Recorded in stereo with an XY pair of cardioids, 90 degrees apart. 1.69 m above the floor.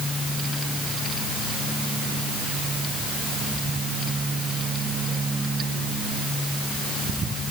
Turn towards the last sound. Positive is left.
No sound to turn to.